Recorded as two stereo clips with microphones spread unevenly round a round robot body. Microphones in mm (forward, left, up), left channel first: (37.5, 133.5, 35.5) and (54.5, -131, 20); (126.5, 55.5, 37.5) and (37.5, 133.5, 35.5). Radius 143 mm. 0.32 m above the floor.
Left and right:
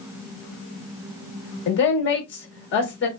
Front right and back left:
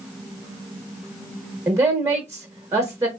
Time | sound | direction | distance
1.7 | a woman speaking | 90° left | 1.0 m